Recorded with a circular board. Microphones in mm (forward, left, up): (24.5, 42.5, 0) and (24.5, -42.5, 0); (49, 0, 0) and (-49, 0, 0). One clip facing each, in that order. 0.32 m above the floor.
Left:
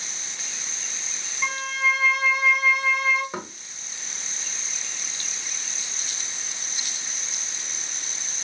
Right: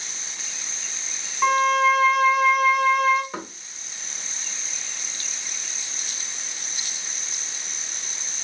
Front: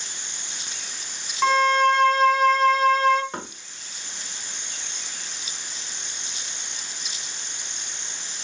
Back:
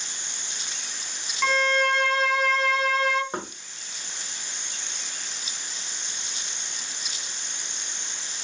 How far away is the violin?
About 0.5 m.